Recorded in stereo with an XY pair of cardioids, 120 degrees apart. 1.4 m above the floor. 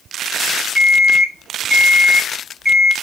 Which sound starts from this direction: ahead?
An alarm clock, at 0.8 s.